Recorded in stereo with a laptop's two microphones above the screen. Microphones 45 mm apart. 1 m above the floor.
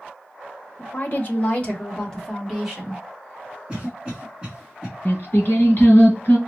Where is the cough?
Centre (ahead or behind), 1.1 m.